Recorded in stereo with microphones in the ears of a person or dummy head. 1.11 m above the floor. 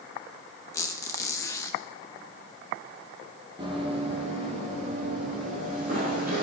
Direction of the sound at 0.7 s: 10° left (ahead or behind).